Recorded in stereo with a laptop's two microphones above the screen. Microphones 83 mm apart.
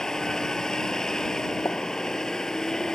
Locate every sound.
0.0 s a vehicle: 5° left (ahead or behind)
1.6 s a pop: 30° left (ahead or behind)